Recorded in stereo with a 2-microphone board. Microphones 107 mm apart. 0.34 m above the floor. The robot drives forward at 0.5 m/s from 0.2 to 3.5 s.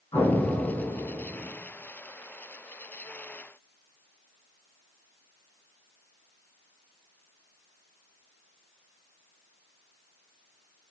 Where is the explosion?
50° left (ahead or behind), 1.9 m; by 1.5 s 65° left (ahead or behind), 1.6 m.